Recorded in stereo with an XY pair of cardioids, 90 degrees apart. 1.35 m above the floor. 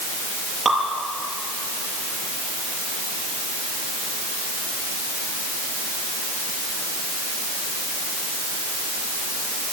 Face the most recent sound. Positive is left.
turn(degrees=-20)